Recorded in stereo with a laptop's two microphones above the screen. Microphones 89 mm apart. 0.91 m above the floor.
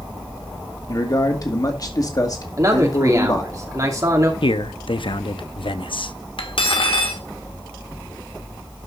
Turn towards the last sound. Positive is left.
turn(degrees=80)